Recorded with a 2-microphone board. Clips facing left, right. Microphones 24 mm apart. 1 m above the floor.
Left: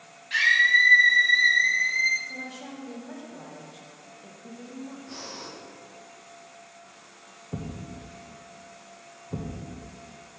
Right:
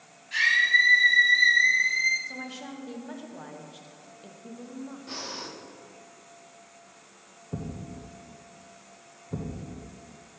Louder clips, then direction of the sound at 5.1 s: Right 2 dB; 50° right (ahead or behind).